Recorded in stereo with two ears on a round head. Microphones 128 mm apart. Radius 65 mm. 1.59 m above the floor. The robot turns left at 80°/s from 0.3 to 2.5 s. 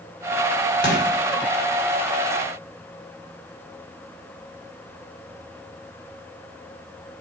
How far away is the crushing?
About 6.5 m.